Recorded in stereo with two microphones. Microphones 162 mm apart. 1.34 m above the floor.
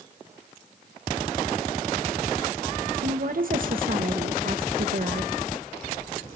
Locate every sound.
3.0 s a woman speaking: 60° right (ahead or behind), 1.2 m